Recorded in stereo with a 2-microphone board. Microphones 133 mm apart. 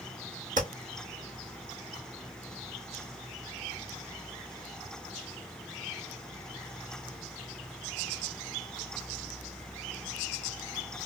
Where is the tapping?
75° right (ahead or behind), 1.6 m.